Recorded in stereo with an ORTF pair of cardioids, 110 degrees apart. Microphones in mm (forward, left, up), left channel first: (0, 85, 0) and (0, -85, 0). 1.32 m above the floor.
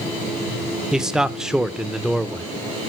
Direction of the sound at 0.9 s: 5° right.